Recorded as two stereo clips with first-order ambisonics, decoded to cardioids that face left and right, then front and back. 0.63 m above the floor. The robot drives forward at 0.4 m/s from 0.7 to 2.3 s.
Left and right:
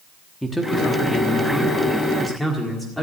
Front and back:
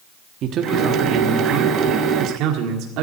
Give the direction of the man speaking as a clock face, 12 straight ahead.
6 o'clock.